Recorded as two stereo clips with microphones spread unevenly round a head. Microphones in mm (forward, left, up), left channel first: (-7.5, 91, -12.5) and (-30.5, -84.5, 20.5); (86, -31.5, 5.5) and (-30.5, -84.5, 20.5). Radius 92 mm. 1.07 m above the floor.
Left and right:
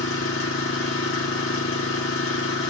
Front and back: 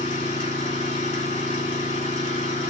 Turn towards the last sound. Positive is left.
turn(degrees=80)